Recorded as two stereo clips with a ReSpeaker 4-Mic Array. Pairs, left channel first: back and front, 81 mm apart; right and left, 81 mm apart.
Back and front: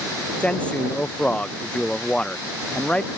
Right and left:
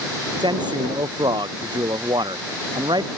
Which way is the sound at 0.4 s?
105° left.